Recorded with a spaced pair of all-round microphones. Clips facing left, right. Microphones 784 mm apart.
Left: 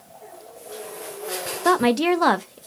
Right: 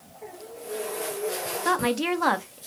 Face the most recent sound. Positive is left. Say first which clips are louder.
# left 7 dB
turn(degrees=70)  # may be behind; listen again after turning